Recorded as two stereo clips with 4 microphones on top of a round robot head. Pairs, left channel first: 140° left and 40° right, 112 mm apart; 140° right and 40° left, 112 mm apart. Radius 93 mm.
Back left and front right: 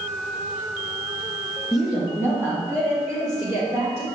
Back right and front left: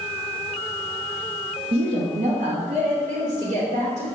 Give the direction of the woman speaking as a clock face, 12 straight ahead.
10 o'clock.